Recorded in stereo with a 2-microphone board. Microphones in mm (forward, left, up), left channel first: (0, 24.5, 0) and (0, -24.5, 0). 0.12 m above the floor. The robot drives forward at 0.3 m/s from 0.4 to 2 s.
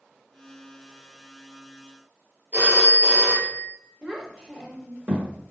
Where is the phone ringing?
40° right (ahead or behind), 1.5 m.